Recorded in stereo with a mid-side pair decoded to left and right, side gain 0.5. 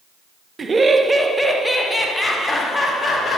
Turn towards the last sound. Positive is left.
turn(degrees=25)